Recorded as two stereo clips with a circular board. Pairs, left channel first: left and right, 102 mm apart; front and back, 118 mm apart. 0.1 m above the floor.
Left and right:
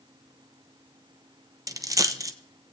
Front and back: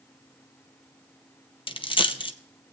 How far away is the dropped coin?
About 0.7 m.